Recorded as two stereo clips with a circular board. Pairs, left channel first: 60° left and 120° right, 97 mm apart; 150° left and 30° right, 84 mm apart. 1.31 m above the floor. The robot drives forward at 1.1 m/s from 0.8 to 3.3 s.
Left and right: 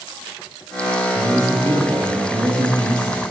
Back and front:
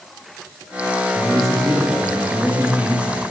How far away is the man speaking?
About 3.5 m.